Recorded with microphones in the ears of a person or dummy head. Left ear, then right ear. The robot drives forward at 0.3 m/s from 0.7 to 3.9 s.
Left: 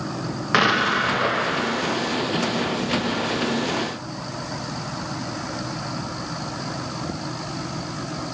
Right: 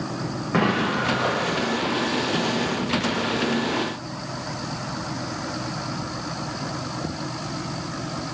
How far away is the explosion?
About 0.5 m.